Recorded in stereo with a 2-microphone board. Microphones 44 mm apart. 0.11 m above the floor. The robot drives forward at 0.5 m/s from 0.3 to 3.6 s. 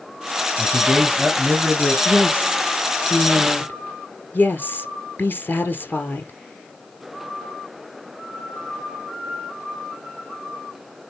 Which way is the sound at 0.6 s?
Centre (ahead or behind).